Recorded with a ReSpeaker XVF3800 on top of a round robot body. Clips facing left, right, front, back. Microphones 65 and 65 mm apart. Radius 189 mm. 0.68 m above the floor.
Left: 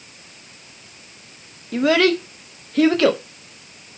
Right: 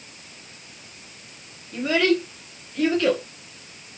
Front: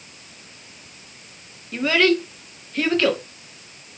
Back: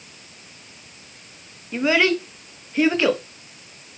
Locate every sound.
1.7 s a child speaking: 105° left, 0.6 m